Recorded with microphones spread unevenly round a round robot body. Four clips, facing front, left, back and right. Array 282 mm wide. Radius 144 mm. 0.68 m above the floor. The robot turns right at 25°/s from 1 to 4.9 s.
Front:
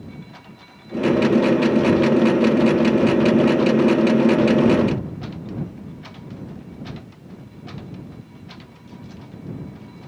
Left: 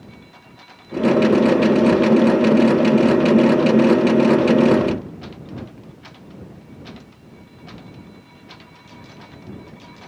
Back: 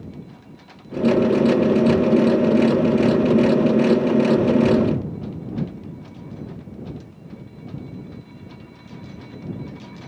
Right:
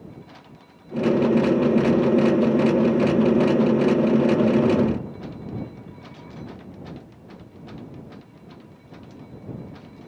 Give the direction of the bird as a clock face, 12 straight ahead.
I don't hear a bird.